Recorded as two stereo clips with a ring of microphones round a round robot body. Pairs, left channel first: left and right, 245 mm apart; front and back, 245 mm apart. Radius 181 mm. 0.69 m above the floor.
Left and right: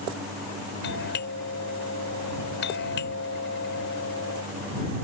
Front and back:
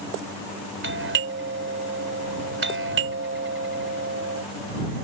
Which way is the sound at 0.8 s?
145° left.